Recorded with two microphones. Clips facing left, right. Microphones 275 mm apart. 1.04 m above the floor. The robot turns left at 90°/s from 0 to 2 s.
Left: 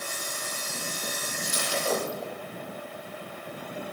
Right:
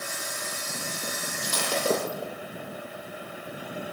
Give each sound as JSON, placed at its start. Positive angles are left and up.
{"t": 1.4, "sound": "breaking glass", "side_deg": -85, "distance_m": 7.0}